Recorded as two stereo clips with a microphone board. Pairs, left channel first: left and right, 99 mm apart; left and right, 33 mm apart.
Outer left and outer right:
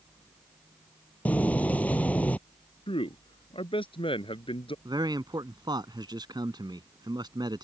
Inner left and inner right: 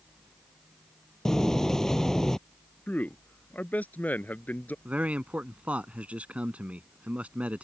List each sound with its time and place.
1.2 s a door slam: 15° left (ahead or behind)
2.9 s a man speaking: 65° left (ahead or behind)
4.8 s a man speaking: 45° right (ahead or behind)